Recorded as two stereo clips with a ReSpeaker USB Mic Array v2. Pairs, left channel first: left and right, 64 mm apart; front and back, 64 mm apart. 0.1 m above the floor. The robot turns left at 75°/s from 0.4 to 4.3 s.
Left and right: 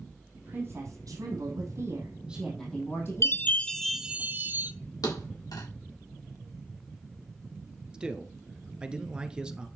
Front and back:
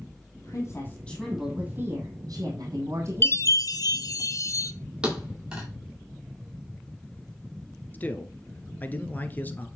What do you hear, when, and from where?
0.3 s a woman speaking: 20° right, 4 m; by 4.2 s 50° left, 4 m
3.2 s a chime: 50° left, 0.7 m; by 4.7 s 30° right, 0.7 m
5.0 s a thud: 100° left, 4.5 m
7.9 s a man speaking: 25° right, 1.2 m